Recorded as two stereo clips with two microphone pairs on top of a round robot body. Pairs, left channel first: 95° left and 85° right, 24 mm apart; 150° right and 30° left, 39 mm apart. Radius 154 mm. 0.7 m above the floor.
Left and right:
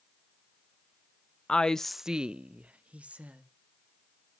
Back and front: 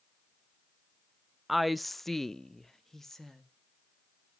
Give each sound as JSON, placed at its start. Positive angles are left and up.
{"t": 1.5, "sound": "a woman speaking", "azimuth_deg": 110, "distance_m": 0.6}